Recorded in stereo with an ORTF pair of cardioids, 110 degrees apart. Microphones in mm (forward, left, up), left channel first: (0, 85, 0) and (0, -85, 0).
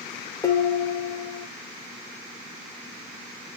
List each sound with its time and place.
0.4 s dishes clattering: 20° left, 1.1 m